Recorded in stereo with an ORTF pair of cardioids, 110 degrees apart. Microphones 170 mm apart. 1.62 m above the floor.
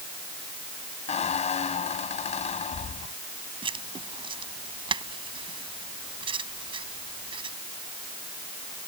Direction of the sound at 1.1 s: 40° left.